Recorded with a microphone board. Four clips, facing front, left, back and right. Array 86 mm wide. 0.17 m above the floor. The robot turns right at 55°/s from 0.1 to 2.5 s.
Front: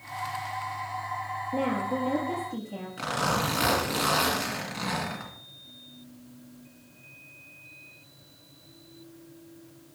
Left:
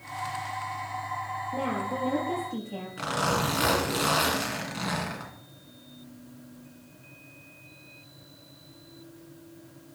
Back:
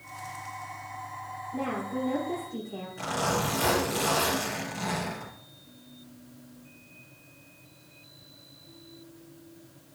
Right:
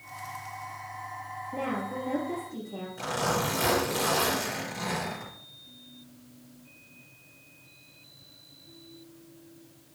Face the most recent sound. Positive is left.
turn(degrees=50)